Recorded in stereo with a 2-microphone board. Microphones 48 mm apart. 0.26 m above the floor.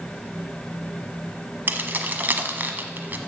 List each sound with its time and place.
1.7 s keys jangling: 40° right (ahead or behind), 1.1 m